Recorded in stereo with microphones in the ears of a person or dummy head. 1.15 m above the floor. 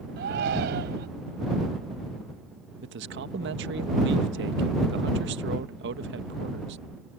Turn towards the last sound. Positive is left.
turn(degrees=-55)  # may be behind; listen again after turning